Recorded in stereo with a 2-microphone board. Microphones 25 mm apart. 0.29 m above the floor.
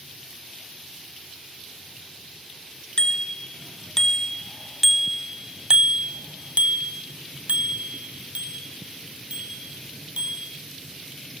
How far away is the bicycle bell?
About 3 m.